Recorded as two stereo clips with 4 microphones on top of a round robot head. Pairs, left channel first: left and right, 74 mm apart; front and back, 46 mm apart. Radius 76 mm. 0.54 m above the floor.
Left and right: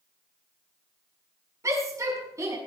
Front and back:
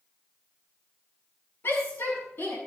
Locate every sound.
1.6 s a shout: 40° right, 6 m